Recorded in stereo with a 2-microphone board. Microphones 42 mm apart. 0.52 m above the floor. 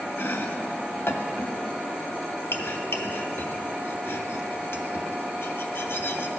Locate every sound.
0.2 s chopping: 65° left (ahead or behind), 0.6 m